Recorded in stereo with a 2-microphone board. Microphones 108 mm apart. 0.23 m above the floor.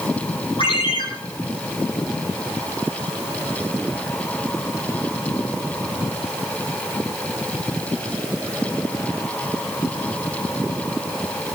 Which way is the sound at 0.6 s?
60° left (ahead or behind).